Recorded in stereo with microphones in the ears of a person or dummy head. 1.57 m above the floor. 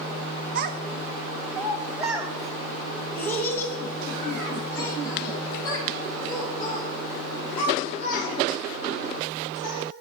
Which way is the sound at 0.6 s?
55° right (ahead or behind).